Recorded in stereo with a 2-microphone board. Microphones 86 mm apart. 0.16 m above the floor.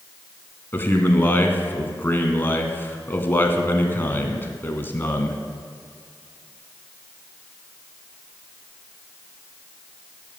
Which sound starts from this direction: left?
A man speaking, at 0.7 s.